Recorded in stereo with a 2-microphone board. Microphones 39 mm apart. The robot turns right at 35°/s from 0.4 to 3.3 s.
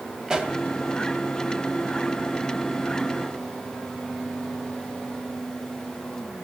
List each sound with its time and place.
0.3 s a pop: 20° right (ahead or behind), 2 m; by 0.5 s 15° right (ahead or behind), 2 m